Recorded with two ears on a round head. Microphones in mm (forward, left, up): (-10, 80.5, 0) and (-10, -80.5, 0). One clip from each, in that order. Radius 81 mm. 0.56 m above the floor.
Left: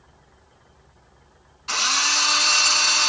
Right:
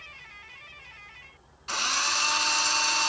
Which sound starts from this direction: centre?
A drill, at 1.7 s.